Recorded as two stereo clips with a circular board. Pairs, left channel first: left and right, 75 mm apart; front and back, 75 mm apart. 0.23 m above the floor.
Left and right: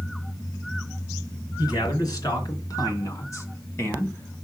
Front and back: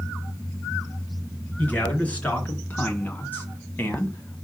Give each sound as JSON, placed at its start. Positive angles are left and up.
{"t": 1.6, "sound": "a man speaking", "azimuth_deg": 70, "distance_m": 3.0}